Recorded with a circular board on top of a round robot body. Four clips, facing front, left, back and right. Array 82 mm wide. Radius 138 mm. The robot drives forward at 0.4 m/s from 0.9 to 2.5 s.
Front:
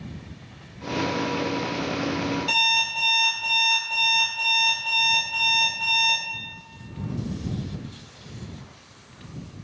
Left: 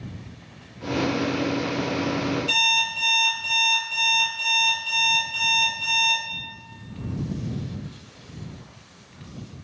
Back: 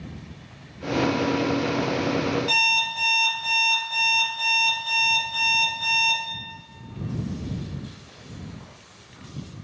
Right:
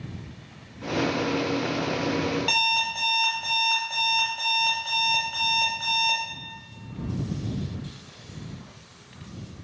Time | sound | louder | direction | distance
2.5 | an alarm clock | even, back 1 dB | 95° right | 0.7 m